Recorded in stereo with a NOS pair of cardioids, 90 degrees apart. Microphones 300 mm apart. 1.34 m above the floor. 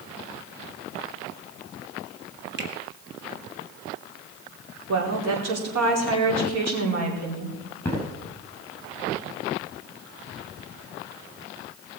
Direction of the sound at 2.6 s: 35° right.